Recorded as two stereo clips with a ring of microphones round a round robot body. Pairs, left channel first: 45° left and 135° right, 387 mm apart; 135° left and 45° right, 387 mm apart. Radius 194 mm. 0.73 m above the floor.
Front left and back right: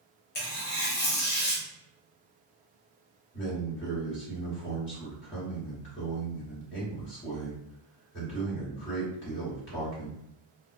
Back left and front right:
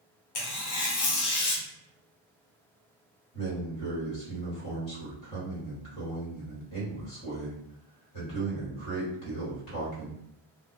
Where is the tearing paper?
105° left, 0.7 m.